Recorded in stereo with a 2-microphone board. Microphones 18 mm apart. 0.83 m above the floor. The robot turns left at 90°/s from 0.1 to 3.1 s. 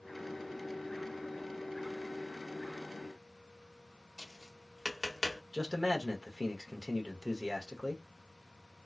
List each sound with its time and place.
4.2 s tapping: 15° left (ahead or behind), 1.0 m
5.5 s a man speaking: 40° right (ahead or behind), 1.1 m